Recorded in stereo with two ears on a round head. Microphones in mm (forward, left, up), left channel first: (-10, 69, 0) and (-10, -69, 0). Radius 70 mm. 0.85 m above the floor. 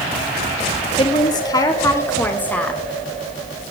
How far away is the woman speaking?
About 2.5 m.